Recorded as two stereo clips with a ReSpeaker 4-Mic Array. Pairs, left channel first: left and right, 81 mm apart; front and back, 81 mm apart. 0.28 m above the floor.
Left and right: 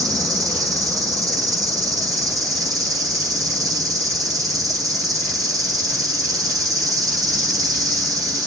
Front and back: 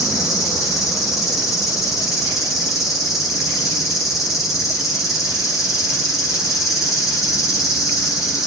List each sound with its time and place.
0.0 s an insect: 45° right, 1.2 m